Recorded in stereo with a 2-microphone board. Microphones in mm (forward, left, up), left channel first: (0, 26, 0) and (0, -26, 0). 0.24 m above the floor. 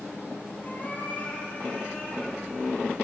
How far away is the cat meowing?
About 4 m.